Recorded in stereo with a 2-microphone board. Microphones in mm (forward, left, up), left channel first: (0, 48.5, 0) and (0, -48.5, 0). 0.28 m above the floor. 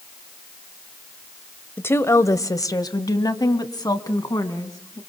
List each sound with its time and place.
1.8 s a woman speaking: 20° left (ahead or behind), 0.9 m; by 5.0 s 40° left (ahead or behind), 2.5 m